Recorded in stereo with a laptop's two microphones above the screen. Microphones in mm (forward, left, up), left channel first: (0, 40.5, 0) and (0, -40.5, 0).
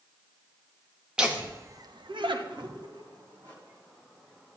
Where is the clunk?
No clunk in this recording.